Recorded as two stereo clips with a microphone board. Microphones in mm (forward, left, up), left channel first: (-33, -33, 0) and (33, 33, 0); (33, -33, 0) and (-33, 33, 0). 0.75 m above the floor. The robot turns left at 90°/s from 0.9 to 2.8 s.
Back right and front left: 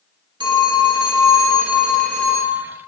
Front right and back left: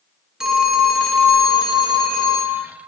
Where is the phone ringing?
50° left, 0.6 m; by 2.6 s 100° right, 0.6 m.